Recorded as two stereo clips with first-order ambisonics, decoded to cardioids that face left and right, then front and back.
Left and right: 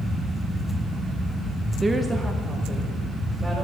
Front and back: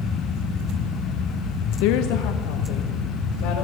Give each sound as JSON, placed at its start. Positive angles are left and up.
{"t": 1.8, "sound": "a woman speaking", "azimuth_deg": -10, "distance_m": 0.7}